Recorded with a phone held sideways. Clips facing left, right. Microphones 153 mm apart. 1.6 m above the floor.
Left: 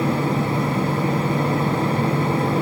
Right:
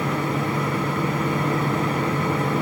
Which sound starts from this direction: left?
A fan, at 0.0 s.